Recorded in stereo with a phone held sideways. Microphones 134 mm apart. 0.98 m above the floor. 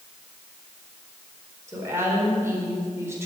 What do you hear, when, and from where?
1.7 s a woman speaking: 20° right (ahead or behind), 4.5 m